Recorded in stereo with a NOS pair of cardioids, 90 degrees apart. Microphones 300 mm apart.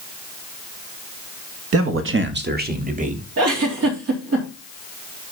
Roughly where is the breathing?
I don't hear breathing.